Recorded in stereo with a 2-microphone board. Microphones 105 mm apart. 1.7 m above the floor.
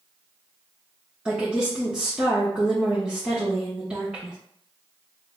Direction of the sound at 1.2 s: 10° right (ahead or behind).